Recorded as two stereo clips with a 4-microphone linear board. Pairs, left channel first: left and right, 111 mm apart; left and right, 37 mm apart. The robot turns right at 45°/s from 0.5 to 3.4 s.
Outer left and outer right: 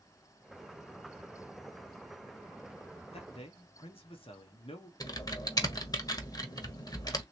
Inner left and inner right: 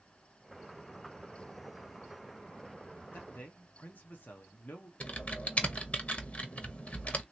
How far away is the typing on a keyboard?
About 0.7 m.